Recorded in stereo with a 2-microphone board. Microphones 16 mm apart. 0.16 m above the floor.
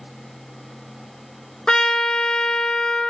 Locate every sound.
1.7 s a trumpet: 55° left (ahead or behind), 0.9 m